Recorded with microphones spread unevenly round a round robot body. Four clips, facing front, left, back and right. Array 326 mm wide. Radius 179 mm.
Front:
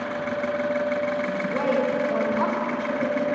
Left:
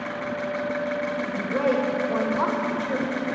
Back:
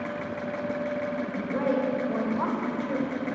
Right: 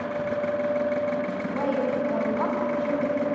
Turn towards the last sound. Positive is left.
turn(degrees=90)